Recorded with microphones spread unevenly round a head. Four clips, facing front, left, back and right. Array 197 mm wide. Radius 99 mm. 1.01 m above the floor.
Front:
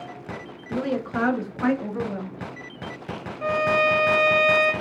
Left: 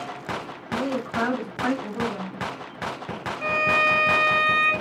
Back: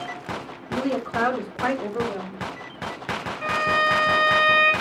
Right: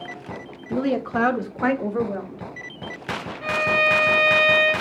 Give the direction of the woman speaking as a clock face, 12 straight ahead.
3 o'clock.